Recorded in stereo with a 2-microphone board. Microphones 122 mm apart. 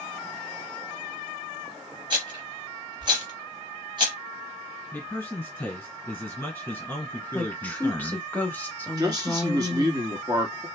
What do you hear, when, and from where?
2.1 s a rattle: 40° right (ahead or behind), 2 m
4.9 s a man speaking: 15° left (ahead or behind), 1.8 m
7.3 s a woman speaking: 15° left (ahead or behind), 1.1 m
9.0 s a man speaking: 35° right (ahead or behind), 1.4 m